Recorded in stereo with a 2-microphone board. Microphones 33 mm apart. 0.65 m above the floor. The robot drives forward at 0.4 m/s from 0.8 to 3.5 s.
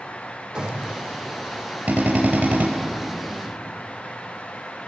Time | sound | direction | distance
0.6 | a gunshot | 30° right (ahead or behind) | 6.5 m
1.9 | a drill | 65° right (ahead or behind) | 4 m